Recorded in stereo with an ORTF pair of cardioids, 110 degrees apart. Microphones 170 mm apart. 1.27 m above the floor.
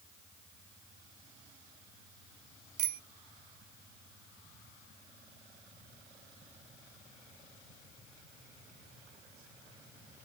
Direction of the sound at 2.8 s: 60° right.